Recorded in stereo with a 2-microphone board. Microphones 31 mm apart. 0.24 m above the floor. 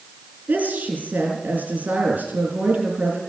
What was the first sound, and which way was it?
A woman speaking, 70° right (ahead or behind).